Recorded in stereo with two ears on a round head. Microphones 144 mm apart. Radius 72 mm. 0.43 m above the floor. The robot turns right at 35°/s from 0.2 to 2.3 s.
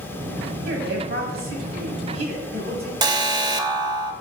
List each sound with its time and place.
0.7 s a woman speaking: 105° right, 3 m; by 2.9 s 45° right, 3 m
3.0 s an alarm: 25° right (ahead or behind), 0.9 m